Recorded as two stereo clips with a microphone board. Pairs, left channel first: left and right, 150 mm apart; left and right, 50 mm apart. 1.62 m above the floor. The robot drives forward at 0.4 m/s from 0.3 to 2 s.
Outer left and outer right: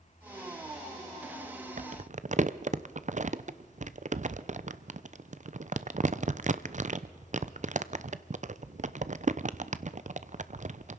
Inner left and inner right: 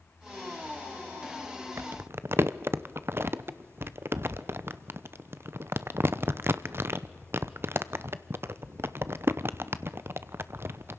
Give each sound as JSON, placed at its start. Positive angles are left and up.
{"t": 1.8, "sound": "crumpling", "side_deg": -55, "distance_m": 0.6}